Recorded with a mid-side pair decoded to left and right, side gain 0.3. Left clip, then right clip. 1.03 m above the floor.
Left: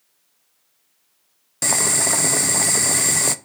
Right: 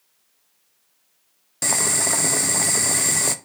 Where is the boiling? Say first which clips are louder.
Left 2 dB; 20° left, 0.7 m.